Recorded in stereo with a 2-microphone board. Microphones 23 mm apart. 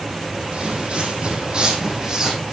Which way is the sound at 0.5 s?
50° right (ahead or behind).